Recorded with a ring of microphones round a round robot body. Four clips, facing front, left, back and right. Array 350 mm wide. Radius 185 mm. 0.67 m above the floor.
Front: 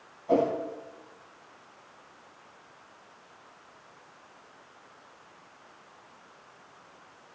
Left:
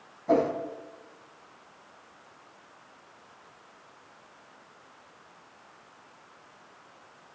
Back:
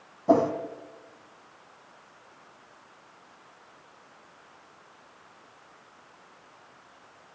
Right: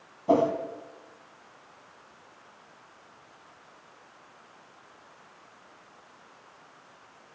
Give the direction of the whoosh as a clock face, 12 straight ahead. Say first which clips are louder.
Right 2 dB, back 3 dB; 5 o'clock.